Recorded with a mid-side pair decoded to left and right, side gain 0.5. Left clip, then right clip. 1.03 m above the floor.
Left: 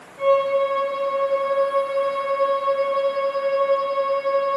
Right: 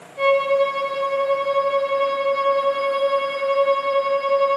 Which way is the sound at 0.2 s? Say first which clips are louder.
Right 1 dB; 65° right.